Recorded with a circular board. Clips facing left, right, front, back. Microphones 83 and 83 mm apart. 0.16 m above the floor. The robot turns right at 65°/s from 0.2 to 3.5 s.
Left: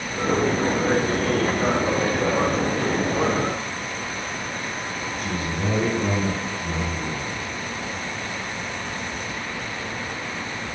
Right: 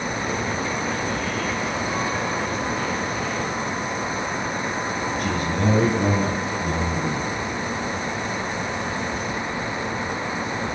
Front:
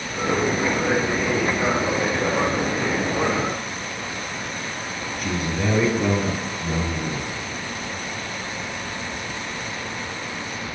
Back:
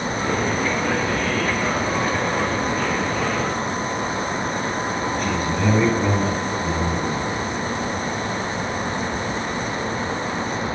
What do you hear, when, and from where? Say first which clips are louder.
5.2 s a man speaking: right 3 dB, even; 85° right, 2 m